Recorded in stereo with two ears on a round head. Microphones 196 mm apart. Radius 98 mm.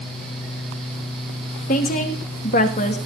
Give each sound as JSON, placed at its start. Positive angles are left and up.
{"t": 1.7, "sound": "a woman speaking", "side_deg": 35, "distance_m": 2.5}